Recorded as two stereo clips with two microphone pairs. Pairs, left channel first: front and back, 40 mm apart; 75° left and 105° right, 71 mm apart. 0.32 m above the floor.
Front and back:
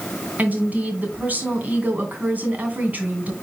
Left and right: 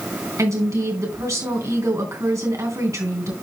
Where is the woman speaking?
140° right, 2.5 m.